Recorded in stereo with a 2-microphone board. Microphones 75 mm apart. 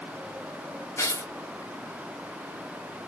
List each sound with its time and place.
1.0 s tearing paper: 35° left (ahead or behind), 1.1 m